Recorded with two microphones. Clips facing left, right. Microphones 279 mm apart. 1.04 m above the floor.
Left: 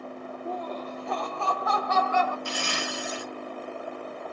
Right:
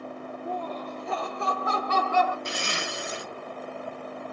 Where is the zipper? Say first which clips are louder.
Left 1 dB; 20° right (ahead or behind), 0.9 m.